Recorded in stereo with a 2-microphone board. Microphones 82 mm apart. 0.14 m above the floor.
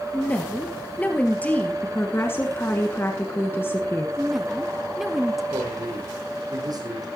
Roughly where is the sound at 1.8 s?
Left.